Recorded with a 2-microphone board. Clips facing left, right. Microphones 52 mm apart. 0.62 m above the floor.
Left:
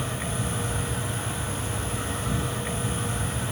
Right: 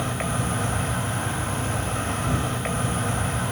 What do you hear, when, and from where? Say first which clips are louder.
0.0 s an insect: right 4 dB; 70° right (ahead or behind), 2.5 m